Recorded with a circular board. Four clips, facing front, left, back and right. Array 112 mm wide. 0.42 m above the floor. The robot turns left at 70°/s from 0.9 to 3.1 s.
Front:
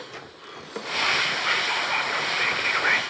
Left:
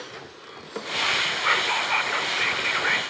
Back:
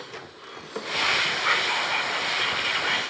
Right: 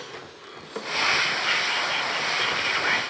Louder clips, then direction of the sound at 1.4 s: Left 3 dB, back 1 dB; 115° left.